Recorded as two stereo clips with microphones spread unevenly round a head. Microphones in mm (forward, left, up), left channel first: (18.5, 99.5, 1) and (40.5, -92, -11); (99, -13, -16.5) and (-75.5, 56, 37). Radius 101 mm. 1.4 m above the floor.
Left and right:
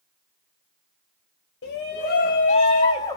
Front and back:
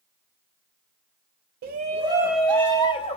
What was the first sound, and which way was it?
A shout, 115° left.